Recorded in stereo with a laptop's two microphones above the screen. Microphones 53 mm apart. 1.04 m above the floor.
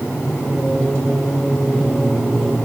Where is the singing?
35° left (ahead or behind), 6.5 m.